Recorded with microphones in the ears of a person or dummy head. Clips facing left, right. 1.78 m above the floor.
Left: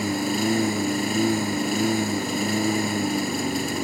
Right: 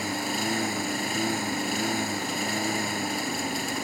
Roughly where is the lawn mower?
Left.